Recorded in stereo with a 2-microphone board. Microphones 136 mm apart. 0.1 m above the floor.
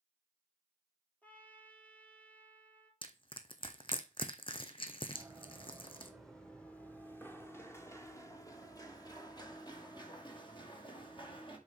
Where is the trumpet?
10° left (ahead or behind), 2.0 m.